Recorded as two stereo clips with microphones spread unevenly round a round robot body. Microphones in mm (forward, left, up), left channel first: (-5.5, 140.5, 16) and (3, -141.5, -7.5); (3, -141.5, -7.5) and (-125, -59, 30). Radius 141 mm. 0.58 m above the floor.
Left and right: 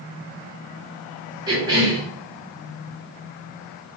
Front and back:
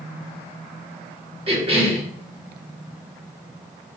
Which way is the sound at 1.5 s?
160° right.